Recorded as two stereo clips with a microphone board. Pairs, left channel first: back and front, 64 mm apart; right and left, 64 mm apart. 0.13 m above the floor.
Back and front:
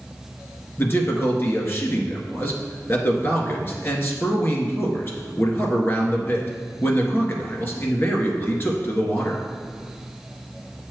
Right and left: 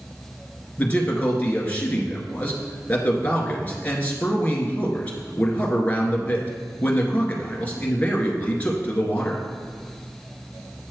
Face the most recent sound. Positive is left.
turn(degrees=-145)